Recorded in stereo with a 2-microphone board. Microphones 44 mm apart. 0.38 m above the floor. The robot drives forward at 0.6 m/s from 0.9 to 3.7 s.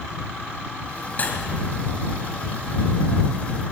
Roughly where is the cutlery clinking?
Left.